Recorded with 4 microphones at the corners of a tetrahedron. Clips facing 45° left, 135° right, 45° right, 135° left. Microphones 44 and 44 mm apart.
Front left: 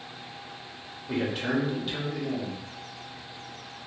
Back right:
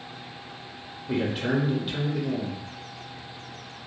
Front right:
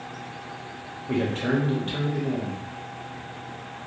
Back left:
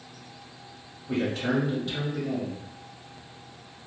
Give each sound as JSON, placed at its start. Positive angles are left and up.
{"t": 1.1, "sound": "a man speaking", "azimuth_deg": -55, "distance_m": 1.1}